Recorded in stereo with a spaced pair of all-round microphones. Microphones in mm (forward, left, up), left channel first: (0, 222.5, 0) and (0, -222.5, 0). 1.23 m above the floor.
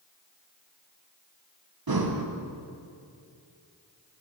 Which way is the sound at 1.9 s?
55° right (ahead or behind).